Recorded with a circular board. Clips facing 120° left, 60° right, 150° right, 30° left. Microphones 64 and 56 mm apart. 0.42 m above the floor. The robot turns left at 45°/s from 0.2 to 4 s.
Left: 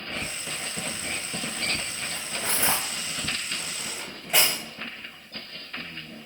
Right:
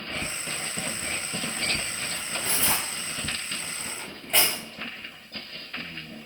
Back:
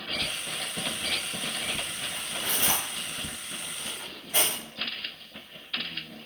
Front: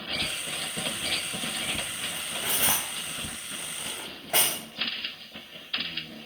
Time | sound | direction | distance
2.1 | cutlery clinking | 120° left | 1.3 m